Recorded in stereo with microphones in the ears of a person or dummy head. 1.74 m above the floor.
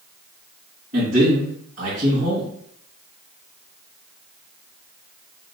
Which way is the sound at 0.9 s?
50° right (ahead or behind).